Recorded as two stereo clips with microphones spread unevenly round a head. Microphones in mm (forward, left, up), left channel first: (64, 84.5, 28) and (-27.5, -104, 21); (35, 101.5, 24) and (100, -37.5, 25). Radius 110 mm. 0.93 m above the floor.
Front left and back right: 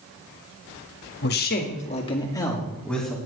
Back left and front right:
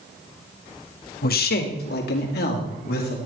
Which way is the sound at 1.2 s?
105° left.